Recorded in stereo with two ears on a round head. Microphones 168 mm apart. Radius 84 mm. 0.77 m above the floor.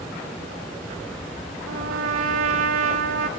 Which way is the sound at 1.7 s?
80° right.